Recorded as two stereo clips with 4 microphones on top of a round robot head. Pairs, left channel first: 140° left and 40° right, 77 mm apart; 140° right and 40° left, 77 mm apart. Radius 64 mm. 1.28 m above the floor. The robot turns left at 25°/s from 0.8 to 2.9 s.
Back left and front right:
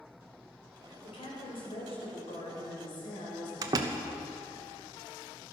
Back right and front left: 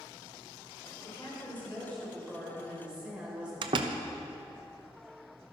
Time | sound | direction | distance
1.0 | a woman speaking | 165° left | 4.5 m
3.6 | a door slam | 10° left | 0.8 m